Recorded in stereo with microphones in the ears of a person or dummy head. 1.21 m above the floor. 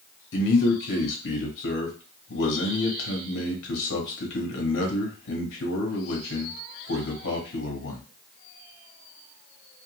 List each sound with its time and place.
0.3 s a man speaking: 70° left (ahead or behind), 1.2 m